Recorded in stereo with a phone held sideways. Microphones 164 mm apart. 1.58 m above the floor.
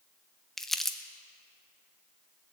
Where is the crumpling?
Centre (ahead or behind), 0.7 m.